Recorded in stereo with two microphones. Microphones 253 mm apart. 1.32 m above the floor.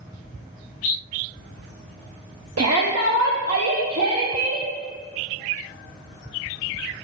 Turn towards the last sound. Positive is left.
turn(degrees=-75)  # may be behind; listen again after turning